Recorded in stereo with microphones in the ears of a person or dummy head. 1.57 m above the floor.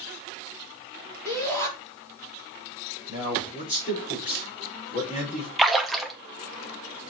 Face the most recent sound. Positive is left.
turn(degrees=0)  # may be behind; listen again after turning